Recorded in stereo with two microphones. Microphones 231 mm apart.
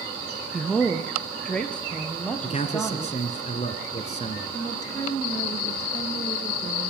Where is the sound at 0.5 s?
Centre (ahead or behind), 1.0 m; by 3.2 s 5° left (ahead or behind), 4.5 m.